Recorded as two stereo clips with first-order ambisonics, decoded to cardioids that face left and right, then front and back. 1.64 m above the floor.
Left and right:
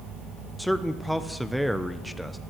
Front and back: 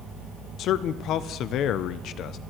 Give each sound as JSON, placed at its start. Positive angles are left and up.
{"t": 0.6, "sound": "a man speaking", "azimuth_deg": 0, "distance_m": 0.6}